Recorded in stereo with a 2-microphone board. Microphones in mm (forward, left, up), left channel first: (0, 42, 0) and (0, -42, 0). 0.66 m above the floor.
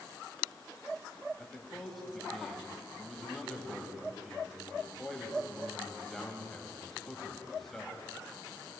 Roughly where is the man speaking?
Centre.